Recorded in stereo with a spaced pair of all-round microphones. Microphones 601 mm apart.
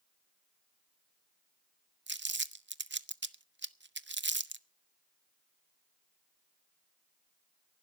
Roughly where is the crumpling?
Right.